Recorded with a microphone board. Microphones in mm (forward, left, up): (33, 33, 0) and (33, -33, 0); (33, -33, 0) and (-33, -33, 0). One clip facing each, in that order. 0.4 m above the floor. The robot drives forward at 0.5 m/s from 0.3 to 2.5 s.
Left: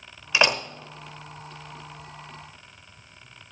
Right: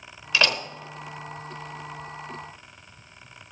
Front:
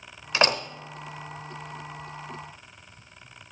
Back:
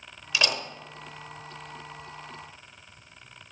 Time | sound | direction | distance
0.3 | a door slam | 25° left | 1.2 m